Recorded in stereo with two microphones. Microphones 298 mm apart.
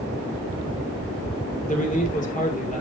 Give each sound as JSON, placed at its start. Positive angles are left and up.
{"t": 1.7, "sound": "a man speaking", "side_deg": 25, "distance_m": 2.5}